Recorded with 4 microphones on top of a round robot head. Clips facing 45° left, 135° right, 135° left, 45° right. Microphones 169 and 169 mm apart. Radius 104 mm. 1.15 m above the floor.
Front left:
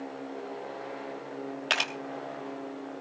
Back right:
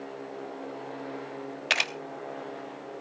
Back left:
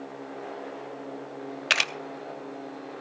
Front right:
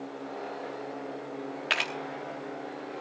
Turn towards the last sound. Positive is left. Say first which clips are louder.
# back right 2 dB, back left 1 dB
turn(degrees=150)